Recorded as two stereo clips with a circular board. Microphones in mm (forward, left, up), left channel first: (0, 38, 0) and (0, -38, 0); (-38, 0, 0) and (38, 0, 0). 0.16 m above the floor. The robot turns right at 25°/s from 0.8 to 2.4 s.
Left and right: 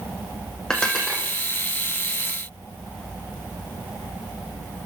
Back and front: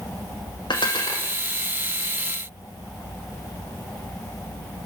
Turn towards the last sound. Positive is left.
turn(degrees=-150)